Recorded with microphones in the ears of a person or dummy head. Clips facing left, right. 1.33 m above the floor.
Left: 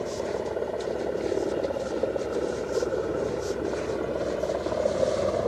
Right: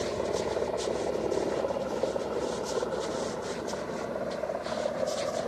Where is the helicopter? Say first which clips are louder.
Left 1 dB; 5° left (ahead or behind); by 5.5 s 55° left (ahead or behind).